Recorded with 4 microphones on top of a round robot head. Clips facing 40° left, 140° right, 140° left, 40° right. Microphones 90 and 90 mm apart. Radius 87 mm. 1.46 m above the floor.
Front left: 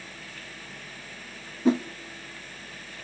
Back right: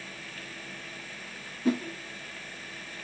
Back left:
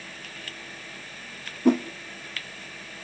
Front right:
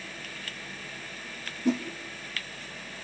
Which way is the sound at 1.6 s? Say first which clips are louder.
Front left 5 dB, back left 6 dB; 105° left.